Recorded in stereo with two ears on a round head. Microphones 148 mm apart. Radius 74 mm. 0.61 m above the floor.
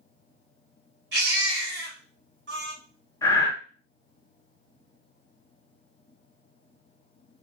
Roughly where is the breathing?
Centre.